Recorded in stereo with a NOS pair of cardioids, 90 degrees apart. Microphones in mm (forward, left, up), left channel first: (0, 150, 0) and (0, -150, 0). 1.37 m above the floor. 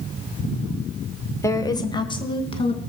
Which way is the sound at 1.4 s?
10° left.